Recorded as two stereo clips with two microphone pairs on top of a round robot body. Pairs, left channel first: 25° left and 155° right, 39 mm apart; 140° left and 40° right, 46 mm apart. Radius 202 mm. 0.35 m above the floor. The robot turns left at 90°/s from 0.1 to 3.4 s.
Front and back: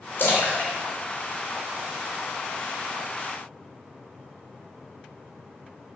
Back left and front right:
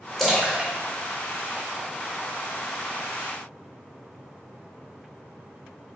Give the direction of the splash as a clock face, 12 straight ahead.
10 o'clock.